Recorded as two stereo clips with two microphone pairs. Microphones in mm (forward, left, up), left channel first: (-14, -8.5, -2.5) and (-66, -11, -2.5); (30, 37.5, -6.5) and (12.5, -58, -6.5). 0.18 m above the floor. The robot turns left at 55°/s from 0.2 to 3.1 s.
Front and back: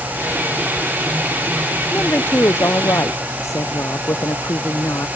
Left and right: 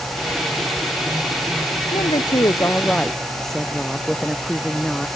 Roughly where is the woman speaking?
Ahead left.